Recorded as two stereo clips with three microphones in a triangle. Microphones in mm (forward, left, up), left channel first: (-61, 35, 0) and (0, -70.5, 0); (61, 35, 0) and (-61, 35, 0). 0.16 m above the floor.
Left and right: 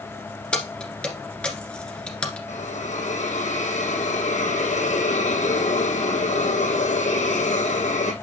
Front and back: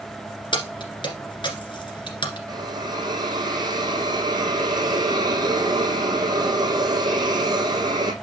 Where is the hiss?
125° left, 1.5 m.